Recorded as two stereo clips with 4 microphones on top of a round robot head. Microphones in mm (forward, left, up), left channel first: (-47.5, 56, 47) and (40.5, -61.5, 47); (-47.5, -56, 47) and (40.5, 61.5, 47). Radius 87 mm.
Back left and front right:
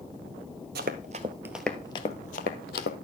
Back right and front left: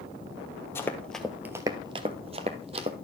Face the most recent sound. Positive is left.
turn(degrees=105)